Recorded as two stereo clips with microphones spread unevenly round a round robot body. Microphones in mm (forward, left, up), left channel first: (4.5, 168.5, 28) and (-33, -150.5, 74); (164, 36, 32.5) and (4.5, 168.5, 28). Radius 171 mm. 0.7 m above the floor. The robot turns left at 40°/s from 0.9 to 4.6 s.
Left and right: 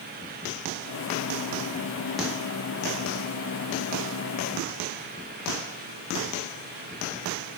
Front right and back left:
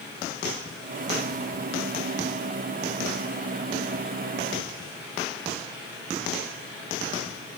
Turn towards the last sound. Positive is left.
No sound to turn to.